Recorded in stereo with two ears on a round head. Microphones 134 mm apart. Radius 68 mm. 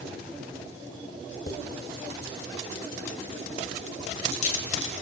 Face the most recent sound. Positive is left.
turn(degrees=50)  # may be behind; listen again after turning